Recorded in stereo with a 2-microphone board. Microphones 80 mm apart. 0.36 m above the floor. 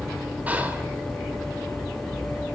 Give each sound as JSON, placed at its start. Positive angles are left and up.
{"t": 0.5, "sound": "whispering", "side_deg": -20, "distance_m": 0.8}